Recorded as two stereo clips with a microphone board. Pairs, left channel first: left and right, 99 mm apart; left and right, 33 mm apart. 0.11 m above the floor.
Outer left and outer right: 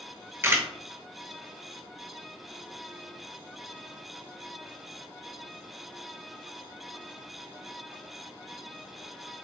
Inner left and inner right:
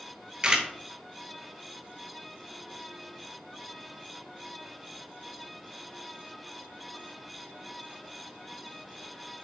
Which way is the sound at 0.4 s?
30° right (ahead or behind).